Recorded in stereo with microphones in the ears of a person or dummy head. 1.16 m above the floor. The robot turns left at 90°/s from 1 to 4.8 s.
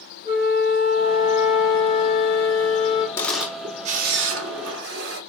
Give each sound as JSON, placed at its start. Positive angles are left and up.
{"t": 0.2, "sound": "a flute", "azimuth_deg": -140, "distance_m": 0.5}
{"t": 3.2, "sound": "a camera shutter", "azimuth_deg": 25, "distance_m": 0.5}